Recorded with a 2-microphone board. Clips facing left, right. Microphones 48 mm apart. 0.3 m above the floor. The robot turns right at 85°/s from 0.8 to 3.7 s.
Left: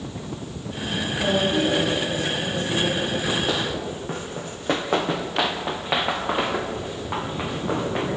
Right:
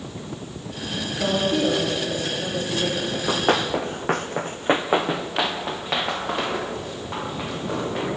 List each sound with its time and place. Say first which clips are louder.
1.2 s a woman speaking: even; 135° right, 5.5 m; by 3.0 s 20° left, 5.5 m
3.1 s running footsteps: right 2 dB; 10° right (ahead or behind), 1.6 m; by 8.1 s 20° left (ahead or behind), 4.5 m